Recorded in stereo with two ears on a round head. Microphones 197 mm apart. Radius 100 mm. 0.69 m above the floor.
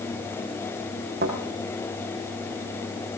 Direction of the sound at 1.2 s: 45° right (ahead or behind).